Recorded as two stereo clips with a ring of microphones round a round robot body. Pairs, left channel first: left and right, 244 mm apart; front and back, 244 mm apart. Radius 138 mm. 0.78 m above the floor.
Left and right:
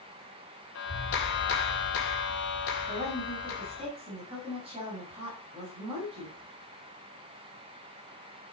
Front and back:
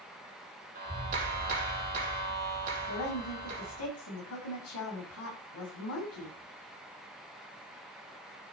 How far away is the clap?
About 3 m.